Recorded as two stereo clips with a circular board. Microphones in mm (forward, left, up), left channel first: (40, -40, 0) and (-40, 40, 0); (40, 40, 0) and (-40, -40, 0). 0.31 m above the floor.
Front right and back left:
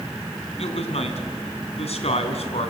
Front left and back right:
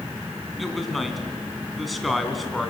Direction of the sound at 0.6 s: 45° right.